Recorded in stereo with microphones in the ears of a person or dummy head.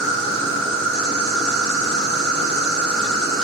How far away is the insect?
About 0.9 m.